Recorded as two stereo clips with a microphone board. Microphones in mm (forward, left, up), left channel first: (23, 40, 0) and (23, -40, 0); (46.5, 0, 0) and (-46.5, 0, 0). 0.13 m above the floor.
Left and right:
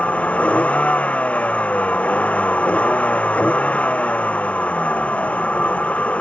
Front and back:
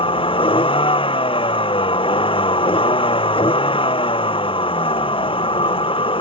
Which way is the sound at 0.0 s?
15° left.